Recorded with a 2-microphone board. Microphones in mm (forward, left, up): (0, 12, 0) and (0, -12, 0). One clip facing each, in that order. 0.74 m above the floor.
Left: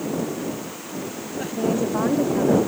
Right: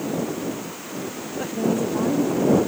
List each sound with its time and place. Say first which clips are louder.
1.5 s a woman speaking: even; 15° left (ahead or behind); by 2.6 s 50° left (ahead or behind)